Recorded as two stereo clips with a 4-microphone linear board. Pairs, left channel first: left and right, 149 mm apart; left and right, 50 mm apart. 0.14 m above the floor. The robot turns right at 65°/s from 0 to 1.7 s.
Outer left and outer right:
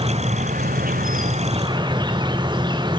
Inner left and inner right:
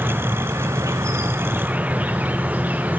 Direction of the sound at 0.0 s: 140° right.